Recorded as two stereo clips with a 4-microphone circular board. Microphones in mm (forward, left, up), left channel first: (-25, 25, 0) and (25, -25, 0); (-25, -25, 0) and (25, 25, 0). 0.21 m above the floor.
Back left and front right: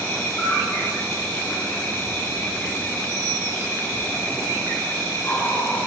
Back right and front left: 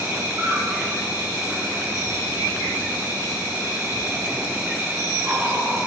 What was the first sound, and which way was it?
An insect, 85° left.